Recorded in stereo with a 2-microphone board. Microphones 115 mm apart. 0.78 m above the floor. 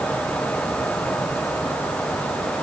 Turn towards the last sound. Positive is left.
No sound to turn to.